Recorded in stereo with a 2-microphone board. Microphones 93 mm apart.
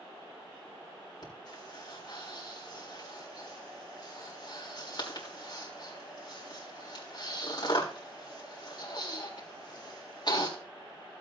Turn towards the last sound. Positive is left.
turn(degrees=45)  # may be behind; listen again after turning